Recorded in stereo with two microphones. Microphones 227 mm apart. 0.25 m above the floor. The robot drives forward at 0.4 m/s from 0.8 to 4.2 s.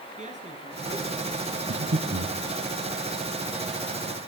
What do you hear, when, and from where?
0.2 s a man speaking: 30° right (ahead or behind), 4.5 m
1.7 s breathing: 70° right (ahead or behind), 3.5 m; by 2.4 s 65° right (ahead or behind), 4 m